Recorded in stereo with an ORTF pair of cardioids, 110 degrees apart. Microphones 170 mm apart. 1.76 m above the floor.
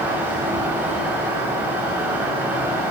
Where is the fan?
10° right, 8 m.